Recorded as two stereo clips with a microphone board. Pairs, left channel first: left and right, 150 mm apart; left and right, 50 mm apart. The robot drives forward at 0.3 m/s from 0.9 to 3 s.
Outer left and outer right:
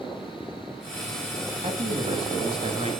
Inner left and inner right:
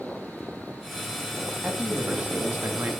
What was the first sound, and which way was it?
A man speaking, 40° right (ahead or behind).